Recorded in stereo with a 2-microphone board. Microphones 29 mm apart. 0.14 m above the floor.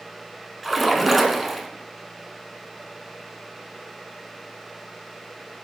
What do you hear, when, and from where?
0.6 s a splash: centre (ahead or behind), 1.0 m